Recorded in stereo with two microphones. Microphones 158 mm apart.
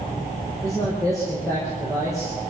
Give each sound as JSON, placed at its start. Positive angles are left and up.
{"t": 0.6, "sound": "a man speaking", "side_deg": 20, "distance_m": 6.0}